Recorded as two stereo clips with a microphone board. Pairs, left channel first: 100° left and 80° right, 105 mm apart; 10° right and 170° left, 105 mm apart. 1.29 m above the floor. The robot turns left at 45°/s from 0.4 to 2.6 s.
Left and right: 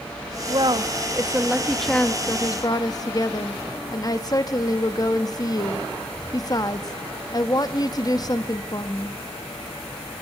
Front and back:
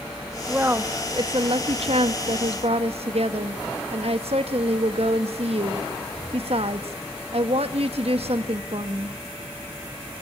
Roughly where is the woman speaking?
Right.